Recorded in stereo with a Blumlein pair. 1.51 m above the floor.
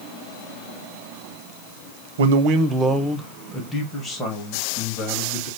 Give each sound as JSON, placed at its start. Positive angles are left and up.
{"t": 2.2, "sound": "a man speaking", "azimuth_deg": -60, "distance_m": 0.6}